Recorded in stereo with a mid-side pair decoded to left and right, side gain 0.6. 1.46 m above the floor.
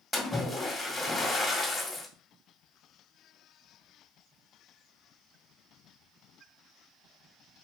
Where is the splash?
20° left, 1.9 m.